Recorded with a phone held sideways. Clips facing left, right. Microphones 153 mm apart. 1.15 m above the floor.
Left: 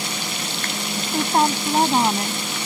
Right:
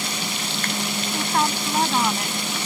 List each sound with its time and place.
1.1 s a woman speaking: 35° left (ahead or behind); by 2.4 s 30° left (ahead or behind)